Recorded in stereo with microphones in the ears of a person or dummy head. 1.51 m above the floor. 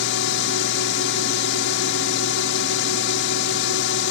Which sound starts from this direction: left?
A drone, at 0.0 s.